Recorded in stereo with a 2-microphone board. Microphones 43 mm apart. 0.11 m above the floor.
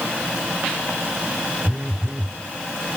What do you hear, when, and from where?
1.6 s a phone buzzing: 20° right (ahead or behind), 1.0 m